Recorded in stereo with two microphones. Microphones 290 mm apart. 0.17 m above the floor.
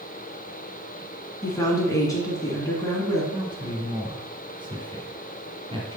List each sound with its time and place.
1.4 s a woman speaking: 10° left (ahead or behind), 1.9 m
3.3 s a man speaking: 15° right (ahead or behind), 1.7 m